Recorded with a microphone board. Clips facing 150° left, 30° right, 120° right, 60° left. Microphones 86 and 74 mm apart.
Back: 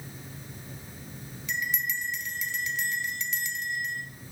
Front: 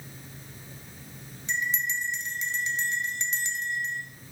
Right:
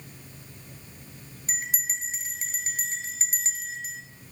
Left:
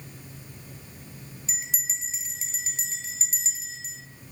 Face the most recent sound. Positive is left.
turn(degrees=-85)